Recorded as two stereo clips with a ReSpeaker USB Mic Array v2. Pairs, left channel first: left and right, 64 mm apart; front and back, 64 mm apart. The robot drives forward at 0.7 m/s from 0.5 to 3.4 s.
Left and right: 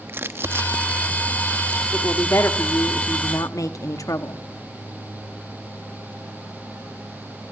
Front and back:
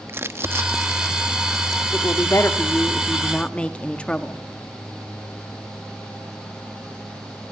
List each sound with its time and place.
0.1 s crumpling: 140° right, 1.3 m; by 1.8 s 155° right, 2.0 m
1.9 s a woman speaking: 35° left, 1.7 m; by 4.4 s 70° left, 1.1 m